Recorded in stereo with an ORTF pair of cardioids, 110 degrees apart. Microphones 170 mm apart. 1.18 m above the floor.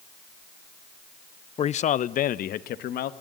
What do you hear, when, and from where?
1.6 s a man speaking: 35° left, 0.6 m; by 3.1 s 65° left, 1.5 m